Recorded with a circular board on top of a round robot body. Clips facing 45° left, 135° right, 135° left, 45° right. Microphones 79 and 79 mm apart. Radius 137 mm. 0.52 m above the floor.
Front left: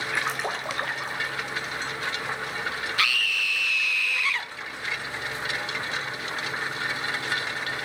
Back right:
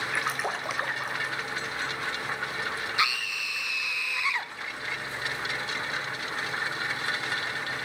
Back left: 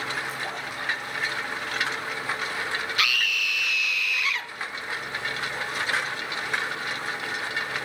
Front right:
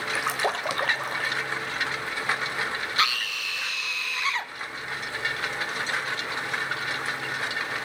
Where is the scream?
75° right, 0.9 m.